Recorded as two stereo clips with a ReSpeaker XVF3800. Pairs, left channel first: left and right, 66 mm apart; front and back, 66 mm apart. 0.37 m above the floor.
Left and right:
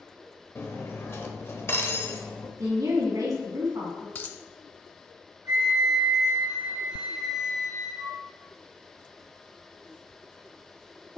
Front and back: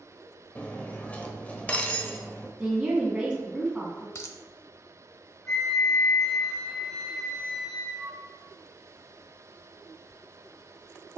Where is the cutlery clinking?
60° left, 0.9 m.